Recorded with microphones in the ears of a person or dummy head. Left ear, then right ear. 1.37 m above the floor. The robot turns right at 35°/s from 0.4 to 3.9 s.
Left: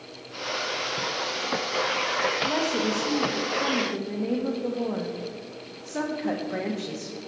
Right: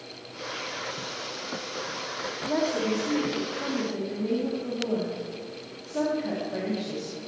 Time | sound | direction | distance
2.5 | a woman speaking | 70° left | 1.4 m